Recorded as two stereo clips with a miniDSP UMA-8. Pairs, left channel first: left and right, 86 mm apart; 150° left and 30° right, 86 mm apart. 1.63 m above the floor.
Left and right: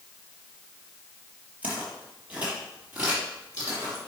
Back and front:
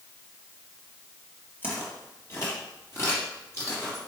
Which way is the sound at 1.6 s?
155° right.